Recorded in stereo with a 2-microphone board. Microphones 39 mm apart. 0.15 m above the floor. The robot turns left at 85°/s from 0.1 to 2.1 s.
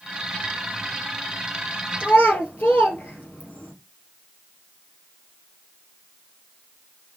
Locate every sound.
2.0 s a child speaking: 60° left (ahead or behind), 2.5 m; by 3.7 s 55° left (ahead or behind), 2.5 m